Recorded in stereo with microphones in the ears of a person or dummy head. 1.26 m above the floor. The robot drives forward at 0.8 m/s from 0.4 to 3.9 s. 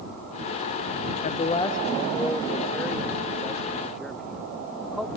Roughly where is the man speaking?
Left.